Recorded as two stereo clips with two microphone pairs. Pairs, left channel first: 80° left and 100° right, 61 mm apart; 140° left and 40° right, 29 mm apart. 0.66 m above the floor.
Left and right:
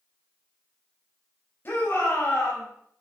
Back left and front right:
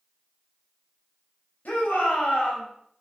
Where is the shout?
130° left, 4 m; by 2.7 s 115° left, 4.5 m.